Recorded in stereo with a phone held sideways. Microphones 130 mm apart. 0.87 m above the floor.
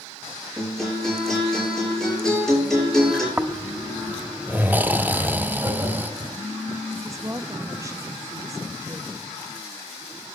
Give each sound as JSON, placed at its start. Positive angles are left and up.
{"t": 0.6, "sound": "a guitar", "side_deg": 0, "distance_m": 8.0}
{"t": 3.4, "sound": "snoring", "side_deg": -15, "distance_m": 0.6}
{"t": 5.6, "sound": "laughter", "side_deg": -25, "distance_m": 5.0}
{"t": 7.0, "sound": "a woman speaking", "side_deg": -25, "distance_m": 1.2}